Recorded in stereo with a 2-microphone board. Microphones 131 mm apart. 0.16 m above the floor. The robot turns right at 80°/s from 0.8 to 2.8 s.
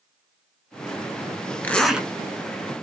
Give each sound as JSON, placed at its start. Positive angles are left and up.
{"t": 1.6, "sound": "a zipper", "azimuth_deg": 160, "distance_m": 0.6}